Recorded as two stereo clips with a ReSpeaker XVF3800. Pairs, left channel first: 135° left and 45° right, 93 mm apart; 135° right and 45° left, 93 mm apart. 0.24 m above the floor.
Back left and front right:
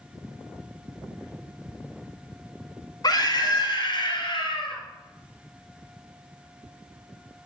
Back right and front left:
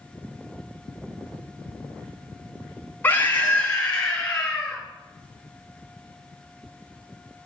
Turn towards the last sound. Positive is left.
turn(degrees=140)